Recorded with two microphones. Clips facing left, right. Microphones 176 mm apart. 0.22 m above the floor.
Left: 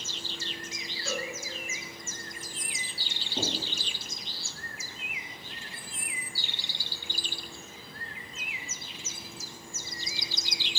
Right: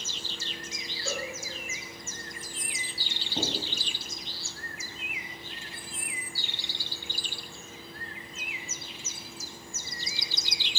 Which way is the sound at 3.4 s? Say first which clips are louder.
Right 1 dB; 45° right (ahead or behind).